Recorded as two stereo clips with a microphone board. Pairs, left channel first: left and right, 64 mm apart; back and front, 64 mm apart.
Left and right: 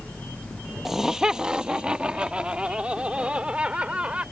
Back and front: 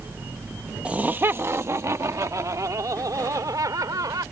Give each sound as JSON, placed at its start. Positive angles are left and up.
{"t": 0.8, "sound": "laughter", "azimuth_deg": -10}